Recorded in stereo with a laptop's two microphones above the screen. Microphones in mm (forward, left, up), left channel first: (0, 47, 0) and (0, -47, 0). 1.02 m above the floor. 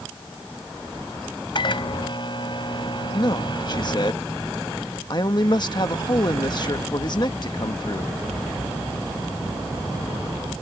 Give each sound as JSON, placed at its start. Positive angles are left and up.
{"t": 1.6, "sound": "a microwave", "side_deg": 50}
{"t": 3.1, "sound": "a man speaking", "side_deg": 45}